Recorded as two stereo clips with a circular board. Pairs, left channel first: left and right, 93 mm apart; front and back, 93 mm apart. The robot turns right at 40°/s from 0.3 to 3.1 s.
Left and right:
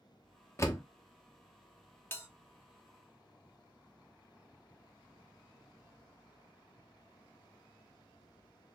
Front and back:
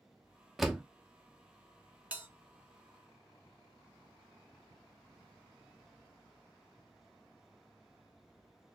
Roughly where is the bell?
Behind left.